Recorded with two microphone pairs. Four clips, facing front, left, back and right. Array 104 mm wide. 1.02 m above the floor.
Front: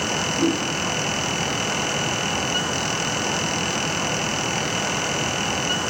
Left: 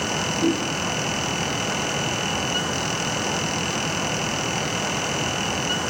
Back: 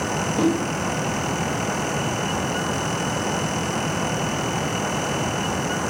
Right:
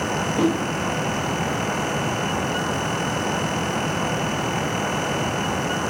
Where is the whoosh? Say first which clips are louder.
Right 1 dB, back 2 dB; 110° right, 2.5 m.